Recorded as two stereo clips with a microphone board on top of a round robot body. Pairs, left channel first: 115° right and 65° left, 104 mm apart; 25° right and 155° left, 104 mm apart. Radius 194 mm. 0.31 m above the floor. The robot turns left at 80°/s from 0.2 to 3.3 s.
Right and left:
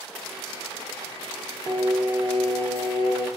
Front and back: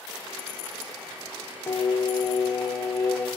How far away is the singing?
About 0.8 m.